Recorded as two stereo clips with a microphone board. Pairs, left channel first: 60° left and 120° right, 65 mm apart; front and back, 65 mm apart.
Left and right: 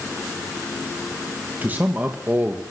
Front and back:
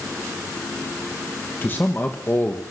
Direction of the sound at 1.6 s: 55° right.